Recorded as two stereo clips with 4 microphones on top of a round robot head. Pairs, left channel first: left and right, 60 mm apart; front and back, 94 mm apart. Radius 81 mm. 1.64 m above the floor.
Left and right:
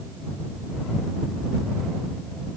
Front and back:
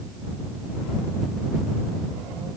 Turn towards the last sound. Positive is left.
No sound to turn to.